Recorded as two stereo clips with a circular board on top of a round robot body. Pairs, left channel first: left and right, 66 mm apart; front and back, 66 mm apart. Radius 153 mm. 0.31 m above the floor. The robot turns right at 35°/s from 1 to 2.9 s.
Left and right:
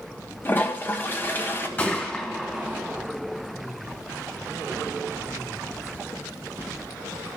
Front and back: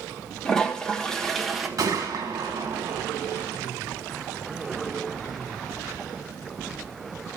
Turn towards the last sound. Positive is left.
turn(degrees=-170)